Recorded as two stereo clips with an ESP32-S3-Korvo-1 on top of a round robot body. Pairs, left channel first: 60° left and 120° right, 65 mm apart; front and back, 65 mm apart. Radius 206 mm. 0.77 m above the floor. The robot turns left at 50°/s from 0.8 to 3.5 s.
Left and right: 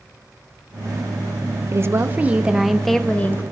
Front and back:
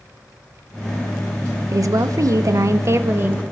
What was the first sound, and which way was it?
A woman speaking, 155° right.